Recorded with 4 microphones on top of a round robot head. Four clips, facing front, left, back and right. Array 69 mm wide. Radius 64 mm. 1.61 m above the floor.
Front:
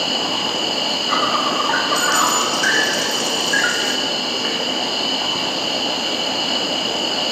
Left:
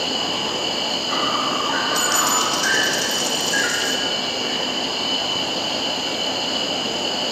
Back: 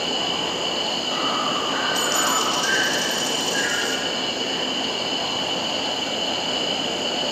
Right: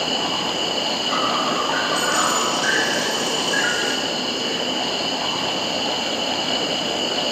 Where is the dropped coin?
80° left, 1.8 m.